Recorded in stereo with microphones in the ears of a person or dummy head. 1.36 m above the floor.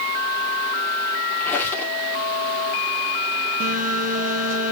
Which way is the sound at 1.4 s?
10° left (ahead or behind).